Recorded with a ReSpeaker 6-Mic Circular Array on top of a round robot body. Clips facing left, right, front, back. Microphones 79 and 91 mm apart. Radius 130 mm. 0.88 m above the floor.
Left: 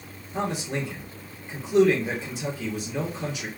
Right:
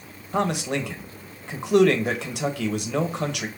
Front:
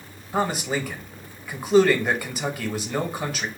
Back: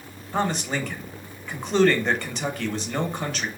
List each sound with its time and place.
0.3 s a man speaking: 85° right, 0.9 m